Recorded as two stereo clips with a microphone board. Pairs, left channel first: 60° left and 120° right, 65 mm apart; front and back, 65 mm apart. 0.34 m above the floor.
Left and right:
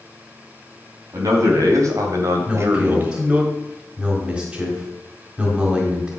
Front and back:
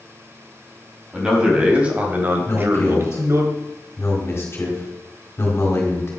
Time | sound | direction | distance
1.1 | a man speaking | 100° right | 3 m
2.5 | a man speaking | 45° right | 4 m